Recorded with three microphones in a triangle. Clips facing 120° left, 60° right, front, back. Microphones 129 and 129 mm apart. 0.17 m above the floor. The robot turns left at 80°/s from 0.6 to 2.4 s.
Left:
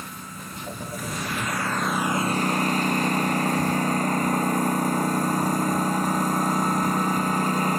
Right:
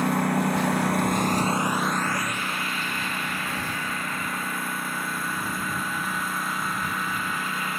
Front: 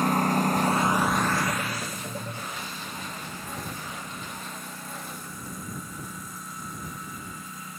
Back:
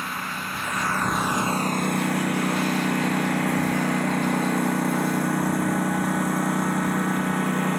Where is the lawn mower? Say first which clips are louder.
Right 16 dB, front 9 dB; 45° right; by 7.8 s 170° left.